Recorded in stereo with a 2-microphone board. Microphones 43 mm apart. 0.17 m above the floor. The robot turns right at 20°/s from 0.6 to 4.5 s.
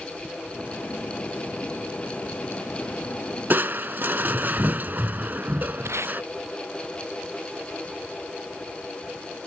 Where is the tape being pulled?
85° right.